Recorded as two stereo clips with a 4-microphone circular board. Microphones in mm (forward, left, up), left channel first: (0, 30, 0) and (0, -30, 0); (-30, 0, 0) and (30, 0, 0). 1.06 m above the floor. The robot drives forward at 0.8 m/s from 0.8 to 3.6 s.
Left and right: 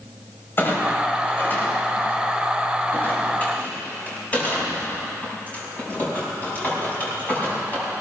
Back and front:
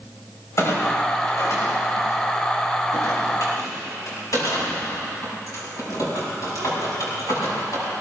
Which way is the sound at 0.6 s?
140° left.